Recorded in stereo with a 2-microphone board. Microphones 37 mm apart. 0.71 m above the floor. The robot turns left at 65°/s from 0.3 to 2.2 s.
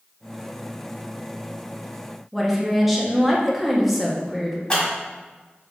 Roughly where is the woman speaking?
Centre.